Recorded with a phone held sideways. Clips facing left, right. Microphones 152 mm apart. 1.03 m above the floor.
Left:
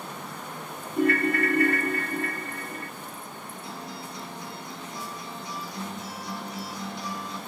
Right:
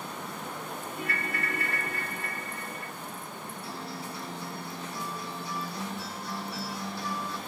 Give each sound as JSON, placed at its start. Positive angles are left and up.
{"t": 1.0, "sound": "a ringtone", "side_deg": 50, "distance_m": 0.5}
{"t": 3.6, "sound": "a guitar", "side_deg": 20, "distance_m": 8.0}